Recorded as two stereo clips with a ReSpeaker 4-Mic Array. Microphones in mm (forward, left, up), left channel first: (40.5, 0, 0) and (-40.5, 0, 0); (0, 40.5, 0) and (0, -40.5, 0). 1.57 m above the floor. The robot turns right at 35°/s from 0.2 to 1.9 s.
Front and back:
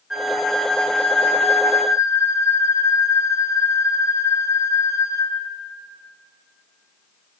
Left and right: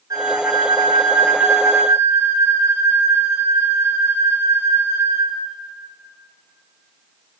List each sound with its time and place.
0.1 s a flute: 95° right, 0.6 m; by 5.4 s 40° right, 0.6 m